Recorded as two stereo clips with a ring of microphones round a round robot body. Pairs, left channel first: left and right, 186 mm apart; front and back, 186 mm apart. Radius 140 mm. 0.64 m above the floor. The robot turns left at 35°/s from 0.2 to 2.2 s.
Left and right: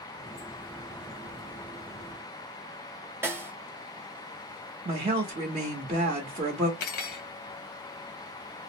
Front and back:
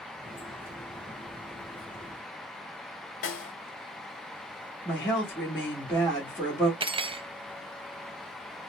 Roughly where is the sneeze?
I don't hear a sneeze.